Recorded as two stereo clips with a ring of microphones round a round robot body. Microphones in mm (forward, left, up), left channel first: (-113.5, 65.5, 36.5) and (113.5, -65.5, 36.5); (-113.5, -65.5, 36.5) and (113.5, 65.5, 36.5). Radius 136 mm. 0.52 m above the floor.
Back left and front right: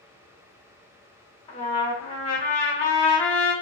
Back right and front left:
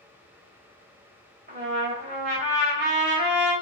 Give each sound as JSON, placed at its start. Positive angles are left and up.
{"t": 1.5, "sound": "a trumpet", "azimuth_deg": 85, "distance_m": 1.5}